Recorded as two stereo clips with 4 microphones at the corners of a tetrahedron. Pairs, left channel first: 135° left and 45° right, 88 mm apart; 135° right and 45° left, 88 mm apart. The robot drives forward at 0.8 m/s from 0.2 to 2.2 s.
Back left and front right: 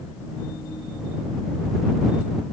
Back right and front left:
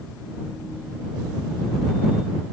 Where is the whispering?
No whispering in this recording.